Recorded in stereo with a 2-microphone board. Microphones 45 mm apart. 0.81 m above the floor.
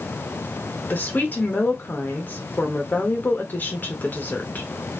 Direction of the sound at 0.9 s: 40° left (ahead or behind).